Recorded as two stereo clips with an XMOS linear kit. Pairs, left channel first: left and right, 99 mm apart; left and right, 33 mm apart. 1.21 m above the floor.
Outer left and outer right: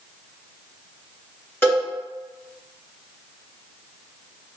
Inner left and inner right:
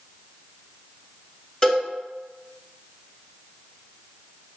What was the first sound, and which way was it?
A cowbell, 25° left (ahead or behind).